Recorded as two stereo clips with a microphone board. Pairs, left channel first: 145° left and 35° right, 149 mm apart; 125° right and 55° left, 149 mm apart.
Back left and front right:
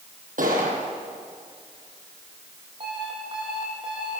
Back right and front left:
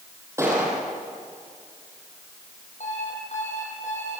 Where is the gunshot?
15° right, 8 m.